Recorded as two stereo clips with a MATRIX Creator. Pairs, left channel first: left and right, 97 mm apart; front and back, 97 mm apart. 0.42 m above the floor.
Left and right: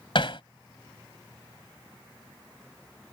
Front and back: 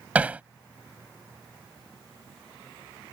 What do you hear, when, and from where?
0.1 s hammering: 110° left